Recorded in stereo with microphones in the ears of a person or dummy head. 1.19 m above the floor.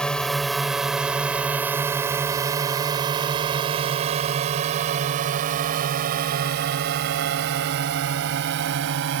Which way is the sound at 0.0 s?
5° left (ahead or behind).